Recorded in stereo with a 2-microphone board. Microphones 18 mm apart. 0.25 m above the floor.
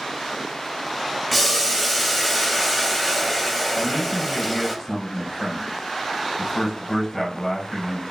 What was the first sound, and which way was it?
Boiling, centre (ahead or behind).